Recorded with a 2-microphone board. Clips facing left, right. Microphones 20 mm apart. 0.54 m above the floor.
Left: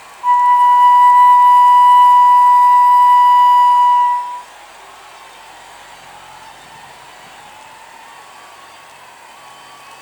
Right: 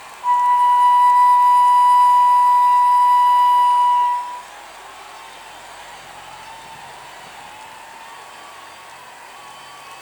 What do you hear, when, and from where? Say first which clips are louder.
0.2 s a flute: left 5 dB; 65° left (ahead or behind), 0.6 m